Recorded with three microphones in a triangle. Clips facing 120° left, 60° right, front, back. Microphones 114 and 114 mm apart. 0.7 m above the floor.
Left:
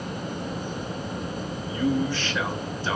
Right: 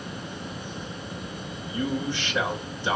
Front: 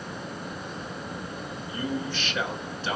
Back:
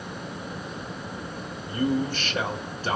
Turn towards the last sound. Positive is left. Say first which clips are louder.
# left 4 dB, back 6 dB
turn(degrees=-130)